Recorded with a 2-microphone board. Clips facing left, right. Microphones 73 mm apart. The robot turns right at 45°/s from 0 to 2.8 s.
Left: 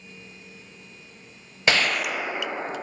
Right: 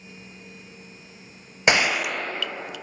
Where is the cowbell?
I don't hear a cowbell.